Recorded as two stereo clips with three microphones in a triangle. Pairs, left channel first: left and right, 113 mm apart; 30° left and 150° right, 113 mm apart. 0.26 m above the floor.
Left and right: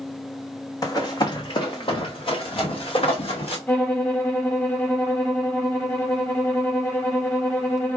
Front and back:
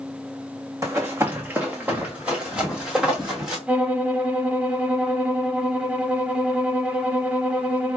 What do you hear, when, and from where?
0.8 s running footsteps: 150° left, 0.8 m; by 3.6 s 125° left, 2.5 m
3.7 s a violin: 145° left, 0.9 m